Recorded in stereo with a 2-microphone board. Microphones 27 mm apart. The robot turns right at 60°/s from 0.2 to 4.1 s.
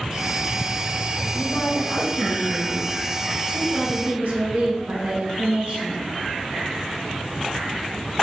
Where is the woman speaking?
90° left, 1.9 m; by 6.0 s 100° right, 1.9 m.